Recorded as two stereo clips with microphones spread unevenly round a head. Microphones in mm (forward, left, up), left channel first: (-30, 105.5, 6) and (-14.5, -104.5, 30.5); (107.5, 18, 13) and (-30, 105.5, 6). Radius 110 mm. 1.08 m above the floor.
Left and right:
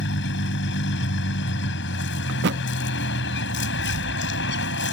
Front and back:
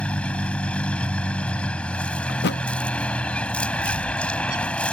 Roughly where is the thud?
Ahead right.